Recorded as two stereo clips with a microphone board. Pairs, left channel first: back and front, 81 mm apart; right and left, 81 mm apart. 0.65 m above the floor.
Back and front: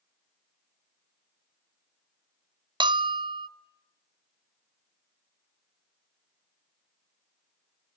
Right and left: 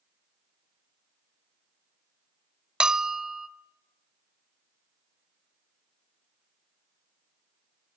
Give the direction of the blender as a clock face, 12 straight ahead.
I don't hear a blender.